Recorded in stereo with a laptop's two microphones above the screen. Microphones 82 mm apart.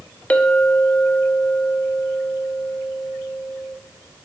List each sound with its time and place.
0.3 s a clink: 15° left (ahead or behind), 0.8 m